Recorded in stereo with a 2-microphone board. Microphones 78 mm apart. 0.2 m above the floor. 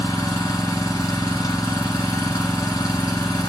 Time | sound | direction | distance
0.0 | an engine running | 45° left (ahead or behind) | 1.3 m